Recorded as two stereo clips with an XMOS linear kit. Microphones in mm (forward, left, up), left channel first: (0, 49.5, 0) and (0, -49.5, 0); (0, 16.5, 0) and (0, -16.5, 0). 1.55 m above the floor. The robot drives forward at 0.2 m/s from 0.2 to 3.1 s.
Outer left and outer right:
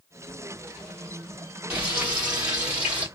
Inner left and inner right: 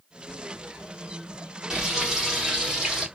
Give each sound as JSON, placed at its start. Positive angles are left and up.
{"t": 1.7, "sound": "frying", "side_deg": -15, "distance_m": 1.2}